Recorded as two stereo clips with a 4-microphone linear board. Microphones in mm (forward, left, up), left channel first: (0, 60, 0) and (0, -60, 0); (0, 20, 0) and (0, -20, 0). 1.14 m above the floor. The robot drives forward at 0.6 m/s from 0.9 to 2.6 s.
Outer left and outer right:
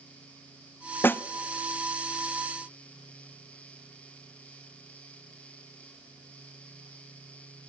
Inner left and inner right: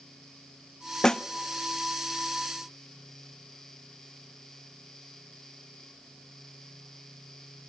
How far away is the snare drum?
About 0.6 m.